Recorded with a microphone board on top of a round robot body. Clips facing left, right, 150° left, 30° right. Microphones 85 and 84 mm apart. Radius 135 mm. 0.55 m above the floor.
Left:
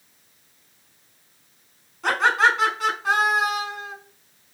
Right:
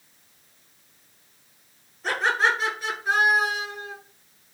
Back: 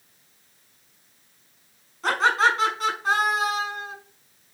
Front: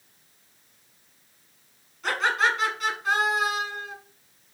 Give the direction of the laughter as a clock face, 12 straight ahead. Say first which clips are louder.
Left 4 dB, back 4 dB; 9 o'clock.